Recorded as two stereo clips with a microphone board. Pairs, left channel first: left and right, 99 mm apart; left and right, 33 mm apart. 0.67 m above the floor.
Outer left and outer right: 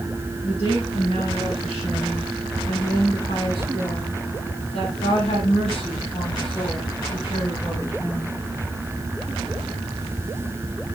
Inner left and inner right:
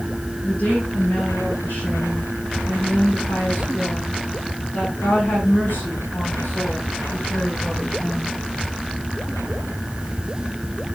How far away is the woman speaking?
About 9 m.